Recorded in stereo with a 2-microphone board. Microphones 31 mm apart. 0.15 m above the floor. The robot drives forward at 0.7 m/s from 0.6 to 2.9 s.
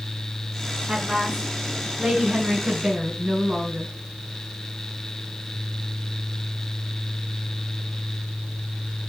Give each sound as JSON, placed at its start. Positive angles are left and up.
{"t": 0.9, "sound": "a woman speaking", "side_deg": -30, "distance_m": 1.8}